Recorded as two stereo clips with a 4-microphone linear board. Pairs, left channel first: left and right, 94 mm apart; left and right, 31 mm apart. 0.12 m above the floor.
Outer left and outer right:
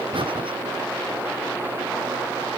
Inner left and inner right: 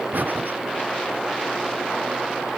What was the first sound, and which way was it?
Breathing, 70° right (ahead or behind).